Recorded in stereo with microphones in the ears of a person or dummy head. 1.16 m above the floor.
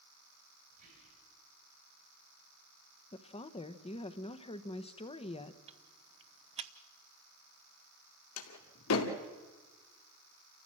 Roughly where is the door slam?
Left.